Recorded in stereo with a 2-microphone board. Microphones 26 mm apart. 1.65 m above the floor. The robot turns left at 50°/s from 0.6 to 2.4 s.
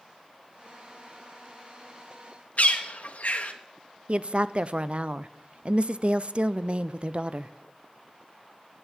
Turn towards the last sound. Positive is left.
turn(degrees=-45)  # may be behind; listen again after turning